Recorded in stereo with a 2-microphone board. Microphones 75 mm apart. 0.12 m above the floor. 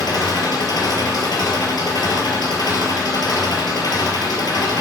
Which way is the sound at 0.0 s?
65° left (ahead or behind).